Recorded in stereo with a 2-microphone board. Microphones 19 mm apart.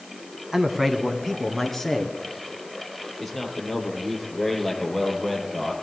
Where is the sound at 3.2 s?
15° left (ahead or behind), 5 m.